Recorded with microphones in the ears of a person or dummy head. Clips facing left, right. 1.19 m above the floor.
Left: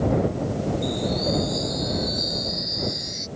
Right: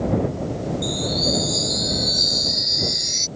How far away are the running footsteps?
No running footsteps in this recording.